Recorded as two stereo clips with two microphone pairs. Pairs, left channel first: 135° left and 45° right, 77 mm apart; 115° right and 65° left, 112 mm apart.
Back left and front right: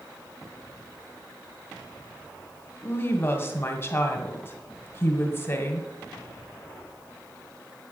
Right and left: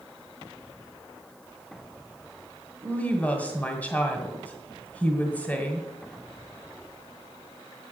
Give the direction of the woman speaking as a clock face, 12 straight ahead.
6 o'clock.